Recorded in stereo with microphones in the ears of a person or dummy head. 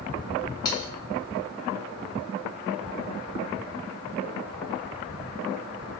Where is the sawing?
25° left (ahead or behind), 0.8 m.